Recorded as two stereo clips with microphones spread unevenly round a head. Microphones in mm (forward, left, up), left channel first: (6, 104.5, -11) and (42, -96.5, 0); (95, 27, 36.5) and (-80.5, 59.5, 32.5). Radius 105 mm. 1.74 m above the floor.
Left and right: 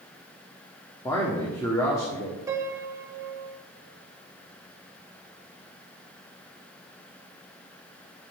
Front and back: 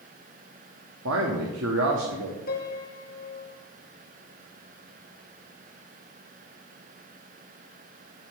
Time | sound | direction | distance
1.1 | a man speaking | straight behind | 1.1 m
2.5 | a piano | 15° right | 1.0 m